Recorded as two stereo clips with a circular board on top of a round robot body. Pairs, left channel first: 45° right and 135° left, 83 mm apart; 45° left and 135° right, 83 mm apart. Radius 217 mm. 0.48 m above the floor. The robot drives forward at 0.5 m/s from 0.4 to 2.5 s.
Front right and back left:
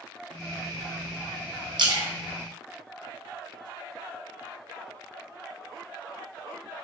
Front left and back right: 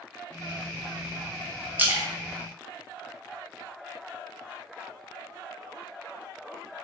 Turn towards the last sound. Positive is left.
turn(degrees=160)